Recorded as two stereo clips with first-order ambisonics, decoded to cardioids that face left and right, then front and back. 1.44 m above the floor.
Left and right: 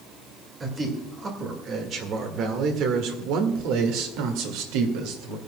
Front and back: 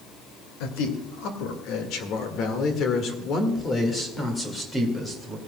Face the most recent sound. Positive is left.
turn(degrees=-90)